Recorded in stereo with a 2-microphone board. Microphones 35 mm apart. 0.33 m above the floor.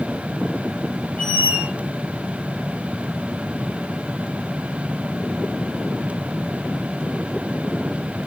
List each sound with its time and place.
1.2 s a squeak: 60° left (ahead or behind), 1.2 m